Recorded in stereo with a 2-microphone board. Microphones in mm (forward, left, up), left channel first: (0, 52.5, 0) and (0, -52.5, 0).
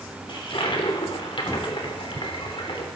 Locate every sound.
0.3 s a toilet flushing: 50° left (ahead or behind), 3 m